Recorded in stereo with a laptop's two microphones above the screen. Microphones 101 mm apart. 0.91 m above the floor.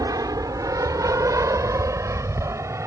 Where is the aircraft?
35° right (ahead or behind); by 2.9 s 30° right (ahead or behind).